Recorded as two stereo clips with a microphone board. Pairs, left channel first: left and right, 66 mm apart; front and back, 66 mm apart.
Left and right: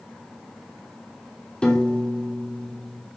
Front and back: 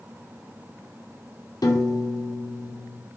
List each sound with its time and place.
1.6 s a piano: 15° left, 0.5 m